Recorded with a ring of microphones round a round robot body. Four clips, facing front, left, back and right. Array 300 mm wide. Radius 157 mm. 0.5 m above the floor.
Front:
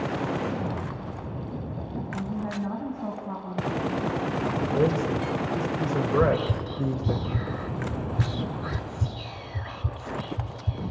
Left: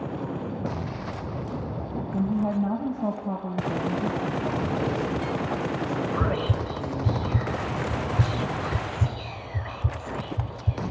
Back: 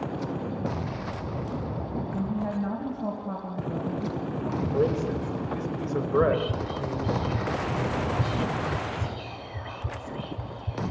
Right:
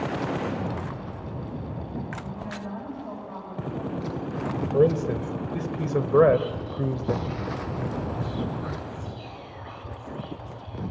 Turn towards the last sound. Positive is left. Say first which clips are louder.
# right 8 dB, back 1 dB
turn(degrees=80)